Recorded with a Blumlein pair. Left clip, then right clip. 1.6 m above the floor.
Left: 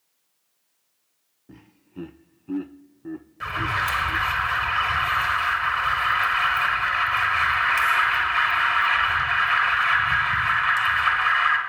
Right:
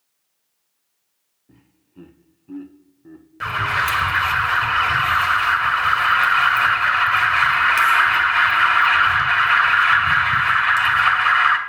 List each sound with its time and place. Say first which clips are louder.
1.5 s laughter: left 7 dB; 70° left, 0.5 m
3.4 s an alarm: right 5 dB; 70° right, 2 m